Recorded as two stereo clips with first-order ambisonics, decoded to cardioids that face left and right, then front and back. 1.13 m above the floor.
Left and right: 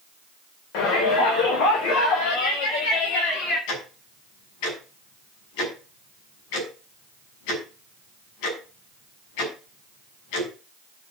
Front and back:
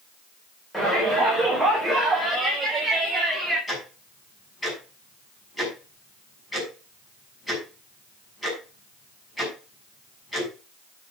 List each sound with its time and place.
0.7 s a shout: 85° left, 4.5 m; by 3.6 s 110° left, 6.5 m
3.7 s ticking: 80° left, 6.5 m